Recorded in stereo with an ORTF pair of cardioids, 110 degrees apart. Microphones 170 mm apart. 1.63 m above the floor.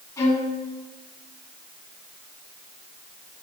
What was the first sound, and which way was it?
A violin, 20° left.